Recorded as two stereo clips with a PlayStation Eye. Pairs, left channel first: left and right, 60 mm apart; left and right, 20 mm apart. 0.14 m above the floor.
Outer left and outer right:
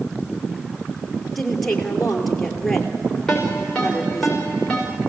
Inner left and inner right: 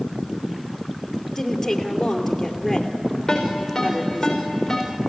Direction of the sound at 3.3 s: 5° left (ahead or behind).